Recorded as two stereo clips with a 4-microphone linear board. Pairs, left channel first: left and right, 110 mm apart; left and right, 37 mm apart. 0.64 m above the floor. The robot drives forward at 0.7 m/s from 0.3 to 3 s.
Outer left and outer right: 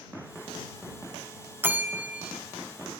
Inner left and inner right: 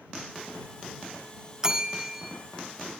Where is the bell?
20° right (ahead or behind), 0.8 m; by 2.4 s 10° right (ahead or behind), 1.2 m.